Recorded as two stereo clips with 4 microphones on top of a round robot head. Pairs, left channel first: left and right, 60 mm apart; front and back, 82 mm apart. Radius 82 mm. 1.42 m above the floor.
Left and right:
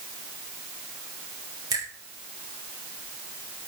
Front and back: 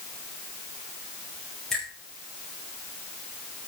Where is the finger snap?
85° right, 5.5 m.